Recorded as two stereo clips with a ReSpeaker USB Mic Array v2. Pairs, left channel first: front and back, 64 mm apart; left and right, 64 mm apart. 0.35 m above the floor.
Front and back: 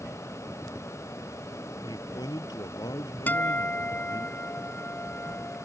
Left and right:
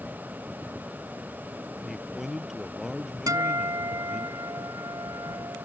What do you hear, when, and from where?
1.8 s a man speaking: 5° right
3.3 s a guitar: 65° right